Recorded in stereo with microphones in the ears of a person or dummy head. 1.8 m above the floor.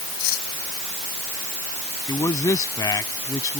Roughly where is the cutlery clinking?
Left.